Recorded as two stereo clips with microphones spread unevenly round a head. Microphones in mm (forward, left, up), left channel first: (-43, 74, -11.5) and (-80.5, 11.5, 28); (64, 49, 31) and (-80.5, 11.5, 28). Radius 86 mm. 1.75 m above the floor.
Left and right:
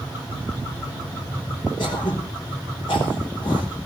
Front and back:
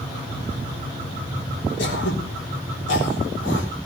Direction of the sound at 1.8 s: 5° right.